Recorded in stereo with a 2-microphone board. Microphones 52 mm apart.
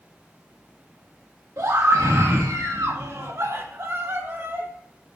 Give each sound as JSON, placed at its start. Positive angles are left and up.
{"t": 1.6, "sound": "a scream", "side_deg": -75, "distance_m": 1.7}